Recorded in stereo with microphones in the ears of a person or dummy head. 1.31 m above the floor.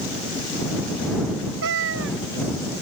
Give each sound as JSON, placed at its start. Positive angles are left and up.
{"t": 1.6, "sound": "a cat meowing", "side_deg": -75}